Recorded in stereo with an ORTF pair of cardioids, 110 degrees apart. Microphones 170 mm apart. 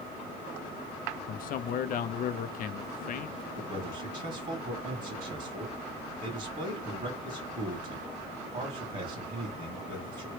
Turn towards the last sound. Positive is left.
turn(degrees=-40)